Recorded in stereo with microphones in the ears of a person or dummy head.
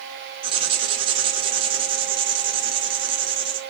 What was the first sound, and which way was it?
Writing, 30° right (ahead or behind).